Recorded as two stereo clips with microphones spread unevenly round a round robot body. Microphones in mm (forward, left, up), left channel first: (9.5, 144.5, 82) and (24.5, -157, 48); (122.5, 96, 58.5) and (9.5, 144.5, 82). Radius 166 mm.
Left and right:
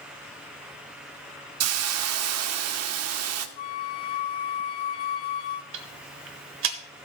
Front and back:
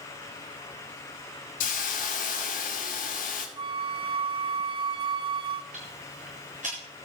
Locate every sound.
1.6 s a hiss: 45° right, 0.8 m
3.6 s a flute: 105° left, 0.5 m
5.7 s ticking: 140° right, 1.0 m